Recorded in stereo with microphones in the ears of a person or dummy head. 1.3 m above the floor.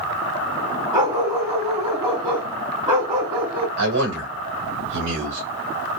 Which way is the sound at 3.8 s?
75° right (ahead or behind).